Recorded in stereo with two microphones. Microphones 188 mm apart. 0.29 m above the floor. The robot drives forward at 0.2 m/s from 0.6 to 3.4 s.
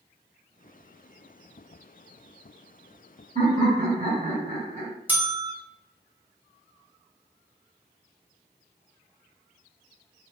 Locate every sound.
3.4 s laughter: 40° right (ahead or behind), 1.5 m
5.1 s a bell: 10° right (ahead or behind), 0.8 m